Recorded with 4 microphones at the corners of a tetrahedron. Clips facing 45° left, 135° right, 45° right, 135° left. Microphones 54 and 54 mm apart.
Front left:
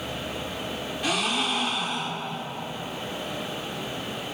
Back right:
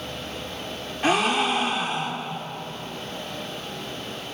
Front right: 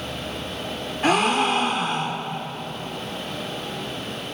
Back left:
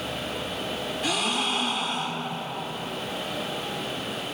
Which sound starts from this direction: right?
A gasp, at 1.0 s.